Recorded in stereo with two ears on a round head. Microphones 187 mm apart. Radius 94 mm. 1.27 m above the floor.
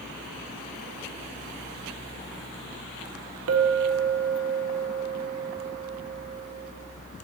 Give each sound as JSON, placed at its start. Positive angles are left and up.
{"t": 3.5, "sound": "a clink", "side_deg": -80, "distance_m": 0.6}